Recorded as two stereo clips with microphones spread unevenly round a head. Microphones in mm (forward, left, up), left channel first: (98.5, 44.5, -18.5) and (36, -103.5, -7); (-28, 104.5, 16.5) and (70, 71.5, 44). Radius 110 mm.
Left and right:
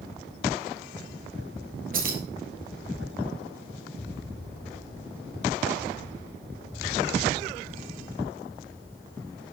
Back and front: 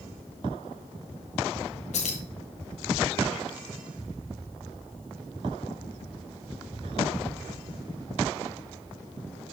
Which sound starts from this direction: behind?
Keys jangling, at 1.9 s.